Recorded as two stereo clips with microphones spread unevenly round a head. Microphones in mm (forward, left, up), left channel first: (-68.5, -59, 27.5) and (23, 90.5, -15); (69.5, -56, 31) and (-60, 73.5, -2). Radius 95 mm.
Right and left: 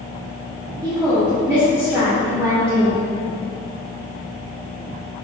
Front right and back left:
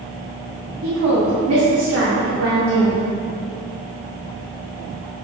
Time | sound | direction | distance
0.8 | a woman speaking | 140° left | 1.7 m